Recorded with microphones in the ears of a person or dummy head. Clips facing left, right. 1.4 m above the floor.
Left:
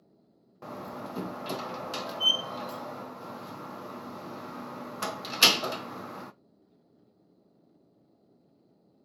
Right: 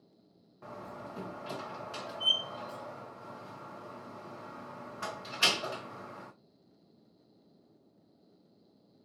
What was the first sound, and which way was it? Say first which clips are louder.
A door slam: left 5 dB; 65° left (ahead or behind).